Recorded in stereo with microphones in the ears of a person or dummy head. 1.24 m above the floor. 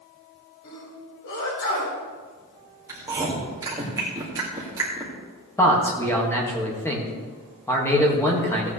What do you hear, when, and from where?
0.6 s a sneeze: 65° left (ahead or behind), 5 m
2.9 s chewing: 15° right (ahead or behind), 2.5 m
5.6 s a man speaking: 10° left (ahead or behind), 2 m